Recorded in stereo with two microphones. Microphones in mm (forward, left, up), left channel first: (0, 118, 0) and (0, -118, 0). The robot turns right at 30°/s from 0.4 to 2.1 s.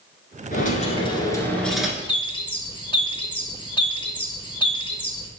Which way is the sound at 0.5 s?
140° left.